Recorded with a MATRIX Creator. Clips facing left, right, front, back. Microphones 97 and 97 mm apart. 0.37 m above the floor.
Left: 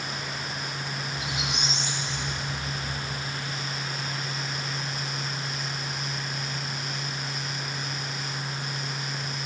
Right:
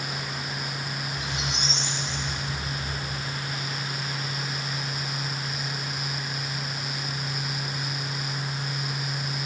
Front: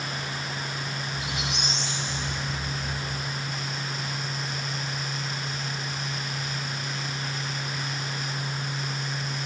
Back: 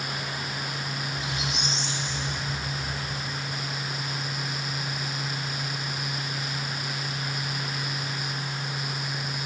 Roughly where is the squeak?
Ahead.